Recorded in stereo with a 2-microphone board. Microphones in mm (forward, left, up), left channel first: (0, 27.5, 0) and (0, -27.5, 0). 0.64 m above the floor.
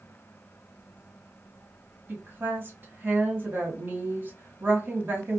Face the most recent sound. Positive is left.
turn(degrees=-40)  # may be behind; listen again after turning